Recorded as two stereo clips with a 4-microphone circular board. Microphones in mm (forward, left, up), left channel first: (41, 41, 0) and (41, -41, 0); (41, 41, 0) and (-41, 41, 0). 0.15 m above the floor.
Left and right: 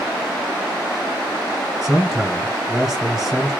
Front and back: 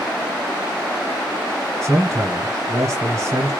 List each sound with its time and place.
1.8 s a man speaking: 175° right, 1.6 m